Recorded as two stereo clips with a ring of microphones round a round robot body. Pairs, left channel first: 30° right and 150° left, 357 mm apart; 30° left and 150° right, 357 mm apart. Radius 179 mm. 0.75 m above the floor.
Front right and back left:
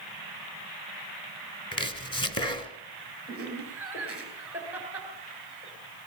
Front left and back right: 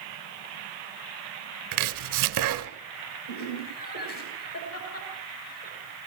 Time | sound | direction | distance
1.7 | chopping | 105° right | 1.9 m
3.3 | laughter | 65° left | 10 m